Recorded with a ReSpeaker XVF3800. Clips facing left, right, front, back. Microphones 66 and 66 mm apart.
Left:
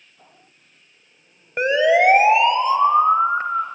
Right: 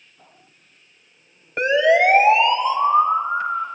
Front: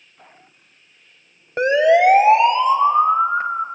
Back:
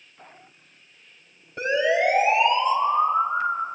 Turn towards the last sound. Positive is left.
turn(degrees=50)